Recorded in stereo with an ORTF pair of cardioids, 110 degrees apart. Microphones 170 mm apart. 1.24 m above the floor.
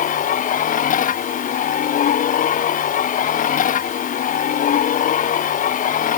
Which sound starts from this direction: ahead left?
A machine running, at 0.0 s.